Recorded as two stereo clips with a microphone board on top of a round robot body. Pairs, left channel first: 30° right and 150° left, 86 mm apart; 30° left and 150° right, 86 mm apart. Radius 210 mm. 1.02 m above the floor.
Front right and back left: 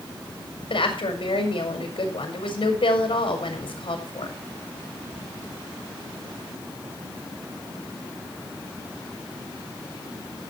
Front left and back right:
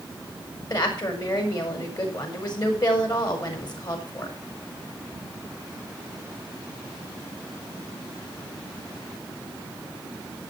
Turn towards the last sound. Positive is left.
turn(degrees=-10)